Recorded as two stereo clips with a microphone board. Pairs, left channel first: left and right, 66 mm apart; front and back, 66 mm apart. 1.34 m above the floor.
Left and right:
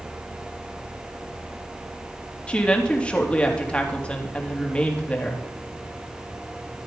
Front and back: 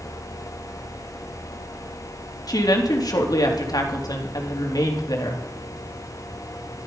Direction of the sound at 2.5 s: 15° left.